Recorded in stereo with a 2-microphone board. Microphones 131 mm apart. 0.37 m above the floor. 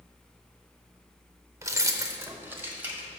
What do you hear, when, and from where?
1.6 s keys jangling: 25° right (ahead or behind), 0.6 m; by 3.1 s 10° right (ahead or behind), 1.4 m